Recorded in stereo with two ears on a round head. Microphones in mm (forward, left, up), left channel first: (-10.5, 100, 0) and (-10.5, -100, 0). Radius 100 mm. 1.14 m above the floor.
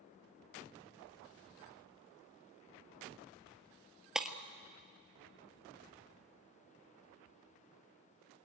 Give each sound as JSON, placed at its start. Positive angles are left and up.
{"t": 4.2, "sound": "breaking glass", "side_deg": 0, "distance_m": 1.2}